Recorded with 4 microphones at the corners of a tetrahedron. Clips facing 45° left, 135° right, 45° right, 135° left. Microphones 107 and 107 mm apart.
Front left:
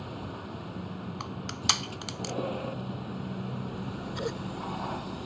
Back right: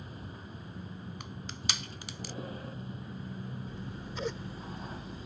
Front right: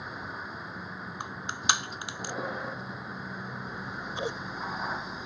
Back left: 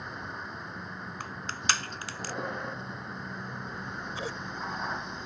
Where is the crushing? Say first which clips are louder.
Front left 7 dB, front right 2 dB; 30° left.